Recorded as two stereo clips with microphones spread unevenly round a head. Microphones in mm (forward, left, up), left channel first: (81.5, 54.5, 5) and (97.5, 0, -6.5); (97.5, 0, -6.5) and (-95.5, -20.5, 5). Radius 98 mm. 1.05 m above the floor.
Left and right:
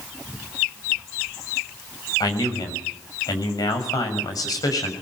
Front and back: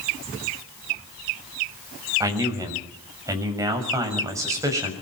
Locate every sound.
2.2 s a man speaking: 110° left, 6 m